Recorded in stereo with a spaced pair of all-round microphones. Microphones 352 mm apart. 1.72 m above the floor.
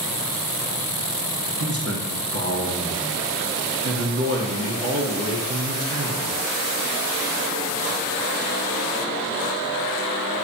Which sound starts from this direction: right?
A man speaking, at 1.6 s.